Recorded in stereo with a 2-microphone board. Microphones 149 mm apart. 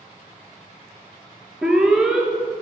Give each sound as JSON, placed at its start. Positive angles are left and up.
{"t": 1.6, "sound": "an alarm", "side_deg": -5, "distance_m": 1.2}